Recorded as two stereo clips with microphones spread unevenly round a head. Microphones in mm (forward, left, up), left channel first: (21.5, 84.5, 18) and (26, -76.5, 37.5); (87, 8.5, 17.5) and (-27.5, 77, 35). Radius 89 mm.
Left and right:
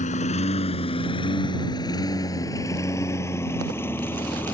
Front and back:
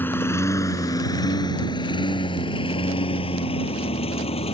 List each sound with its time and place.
0.0 s a lawn mower: 45° left; by 4.5 s 10° left